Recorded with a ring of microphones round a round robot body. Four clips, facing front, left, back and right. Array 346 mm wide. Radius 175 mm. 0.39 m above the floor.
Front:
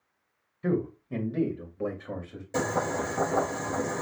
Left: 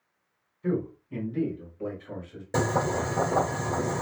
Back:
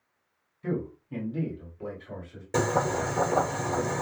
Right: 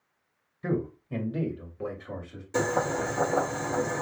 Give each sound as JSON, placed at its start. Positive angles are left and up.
{"t": 0.6, "sound": "a man speaking", "azimuth_deg": -55, "distance_m": 1.8}
{"t": 2.5, "sound": "boiling", "azimuth_deg": 120, "distance_m": 3.0}